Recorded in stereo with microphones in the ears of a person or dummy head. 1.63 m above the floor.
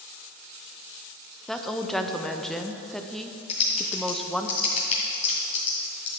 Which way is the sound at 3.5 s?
30° left (ahead or behind).